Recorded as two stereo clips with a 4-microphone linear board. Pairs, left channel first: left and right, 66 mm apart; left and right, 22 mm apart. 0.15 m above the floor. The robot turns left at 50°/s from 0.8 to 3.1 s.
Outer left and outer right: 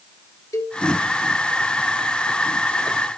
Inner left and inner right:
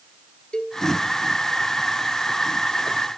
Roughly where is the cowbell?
Left.